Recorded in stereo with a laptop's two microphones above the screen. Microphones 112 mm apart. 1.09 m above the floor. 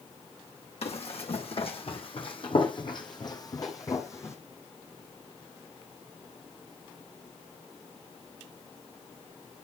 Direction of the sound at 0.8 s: 60° left (ahead or behind).